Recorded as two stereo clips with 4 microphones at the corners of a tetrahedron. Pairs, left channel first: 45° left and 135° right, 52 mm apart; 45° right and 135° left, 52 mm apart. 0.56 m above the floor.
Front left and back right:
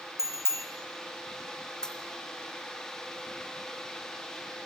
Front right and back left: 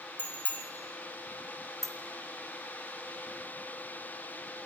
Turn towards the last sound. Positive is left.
turn(degrees=120)